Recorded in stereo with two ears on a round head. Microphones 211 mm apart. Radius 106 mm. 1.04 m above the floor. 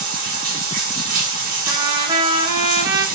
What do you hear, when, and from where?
0.0 s running water: 40° right (ahead or behind), 1.2 m
1.7 s a trumpet: 15° right (ahead or behind), 0.9 m